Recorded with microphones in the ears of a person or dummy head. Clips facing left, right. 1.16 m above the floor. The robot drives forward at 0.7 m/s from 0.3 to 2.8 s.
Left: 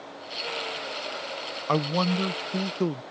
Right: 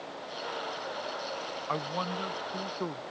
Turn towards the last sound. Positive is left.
turn(degrees=40)  # may be behind; listen again after turning